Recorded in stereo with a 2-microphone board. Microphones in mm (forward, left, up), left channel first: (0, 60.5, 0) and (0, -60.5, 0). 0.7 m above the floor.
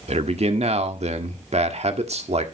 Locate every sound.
0.1 s a man speaking: 60° right (ahead or behind), 1.6 m